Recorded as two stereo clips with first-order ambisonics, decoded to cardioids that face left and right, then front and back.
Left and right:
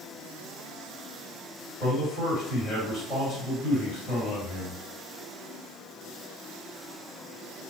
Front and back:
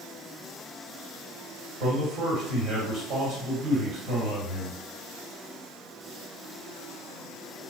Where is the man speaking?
160° left, 1.8 m.